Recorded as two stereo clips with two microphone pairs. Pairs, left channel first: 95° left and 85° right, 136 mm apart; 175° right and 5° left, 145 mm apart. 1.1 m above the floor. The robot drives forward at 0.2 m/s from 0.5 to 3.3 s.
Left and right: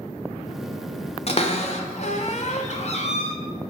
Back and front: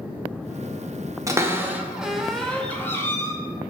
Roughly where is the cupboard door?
Left.